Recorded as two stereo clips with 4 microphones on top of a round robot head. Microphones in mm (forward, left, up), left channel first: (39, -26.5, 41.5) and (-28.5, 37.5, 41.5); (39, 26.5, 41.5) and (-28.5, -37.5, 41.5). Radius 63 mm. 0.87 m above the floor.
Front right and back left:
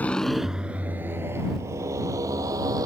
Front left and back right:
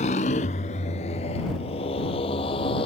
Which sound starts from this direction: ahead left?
A motorcycle, at 0.0 s.